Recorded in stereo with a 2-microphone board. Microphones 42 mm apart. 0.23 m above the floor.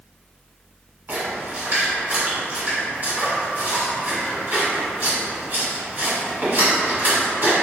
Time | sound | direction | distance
1.1 | a splash | 55° right (ahead or behind) | 1.5 m